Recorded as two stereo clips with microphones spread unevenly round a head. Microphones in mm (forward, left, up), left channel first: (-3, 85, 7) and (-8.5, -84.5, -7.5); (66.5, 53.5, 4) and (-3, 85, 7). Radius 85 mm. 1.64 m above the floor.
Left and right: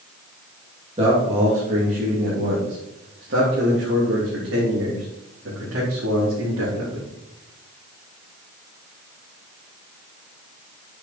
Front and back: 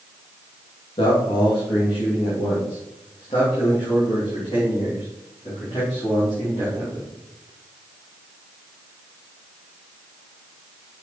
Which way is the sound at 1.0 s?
30° right.